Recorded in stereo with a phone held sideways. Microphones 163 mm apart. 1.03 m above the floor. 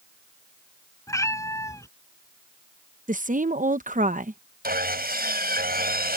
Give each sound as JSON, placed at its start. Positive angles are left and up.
{"t": 1.1, "sound": "a cat meowing", "side_deg": 20}
{"t": 3.1, "sound": "a woman speaking", "side_deg": -55}
{"t": 4.6, "sound": "sawing", "side_deg": -75}